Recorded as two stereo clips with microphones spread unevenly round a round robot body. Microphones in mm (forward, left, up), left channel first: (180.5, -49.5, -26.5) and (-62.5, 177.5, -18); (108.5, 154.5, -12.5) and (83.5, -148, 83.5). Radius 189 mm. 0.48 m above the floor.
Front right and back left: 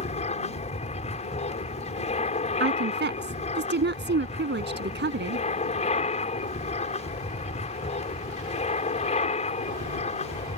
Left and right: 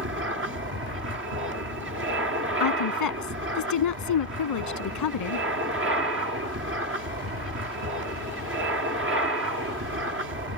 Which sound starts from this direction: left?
A woman speaking, at 2.6 s.